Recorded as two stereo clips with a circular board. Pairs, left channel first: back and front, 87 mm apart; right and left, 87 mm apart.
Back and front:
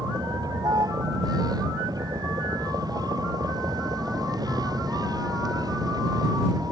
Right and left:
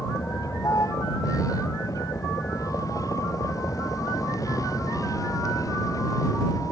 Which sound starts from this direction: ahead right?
A vehicle, at 0.0 s.